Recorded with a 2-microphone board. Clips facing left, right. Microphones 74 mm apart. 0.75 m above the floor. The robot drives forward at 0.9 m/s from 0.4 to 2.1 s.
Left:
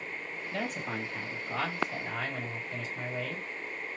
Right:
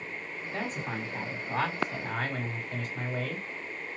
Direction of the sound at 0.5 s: 30° right (ahead or behind).